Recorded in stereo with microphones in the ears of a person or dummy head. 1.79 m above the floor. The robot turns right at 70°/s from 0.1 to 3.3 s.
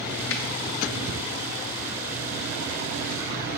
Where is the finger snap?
65° left (ahead or behind), 0.6 m; by 0.4 s 60° left (ahead or behind), 0.6 m.